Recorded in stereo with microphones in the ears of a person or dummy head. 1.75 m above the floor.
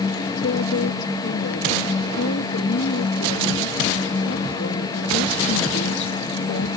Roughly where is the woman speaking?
Left.